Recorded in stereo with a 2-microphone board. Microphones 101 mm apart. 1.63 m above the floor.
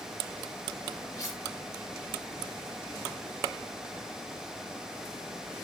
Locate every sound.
1.2 s cutlery clinking: 30° left (ahead or behind), 6 m